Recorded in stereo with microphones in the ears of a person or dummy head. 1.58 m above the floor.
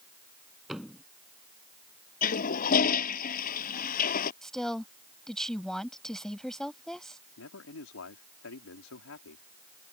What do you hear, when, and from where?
0.7 s a thud: 5° right (ahead or behind)
2.2 s a toilet flushing: 45° left (ahead or behind)
4.4 s a woman speaking: centre (ahead or behind)
7.4 s a man speaking: 85° left